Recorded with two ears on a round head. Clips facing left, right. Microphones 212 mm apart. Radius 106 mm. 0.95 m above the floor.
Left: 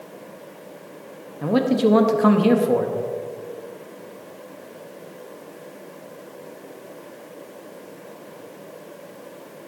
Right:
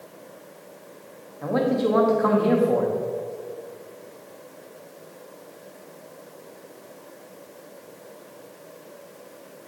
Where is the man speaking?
45° left (ahead or behind), 0.9 m.